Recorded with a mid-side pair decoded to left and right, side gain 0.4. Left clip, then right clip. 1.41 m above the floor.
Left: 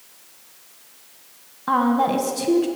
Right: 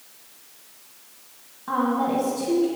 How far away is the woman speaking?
About 1.3 m.